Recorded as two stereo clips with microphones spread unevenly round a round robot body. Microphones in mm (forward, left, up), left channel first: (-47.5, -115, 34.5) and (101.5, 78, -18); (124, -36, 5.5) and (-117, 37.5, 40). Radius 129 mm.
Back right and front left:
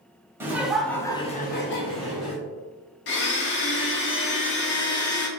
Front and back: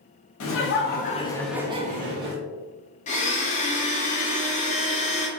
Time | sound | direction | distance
0.4 | laughter | 20° right | 0.9 m
3.1 | a blender | 80° right | 0.6 m